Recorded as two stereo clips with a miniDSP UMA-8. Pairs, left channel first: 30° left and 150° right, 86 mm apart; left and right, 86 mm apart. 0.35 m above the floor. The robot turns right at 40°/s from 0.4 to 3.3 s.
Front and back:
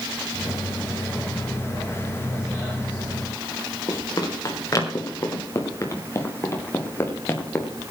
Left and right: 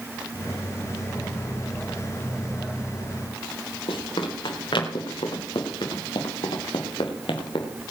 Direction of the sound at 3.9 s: 80° left.